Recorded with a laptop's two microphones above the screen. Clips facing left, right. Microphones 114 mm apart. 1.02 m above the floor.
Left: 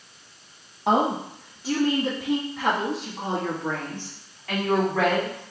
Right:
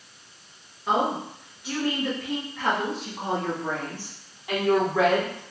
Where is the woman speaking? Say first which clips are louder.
Left 3 dB; 65° left (ahead or behind), 1.0 m; by 5.4 s 20° right (ahead or behind), 3 m.